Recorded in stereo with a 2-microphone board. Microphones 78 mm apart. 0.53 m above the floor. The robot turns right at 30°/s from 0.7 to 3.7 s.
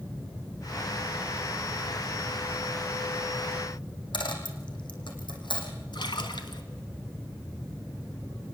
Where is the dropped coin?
85° left, 4.5 m.